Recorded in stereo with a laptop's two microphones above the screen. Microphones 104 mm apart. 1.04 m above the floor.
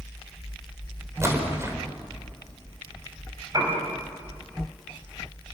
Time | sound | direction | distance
1.2 | a splash | 30° right (ahead or behind) | 4.5 m
3.5 | a piano | 35° right (ahead or behind) | 5.5 m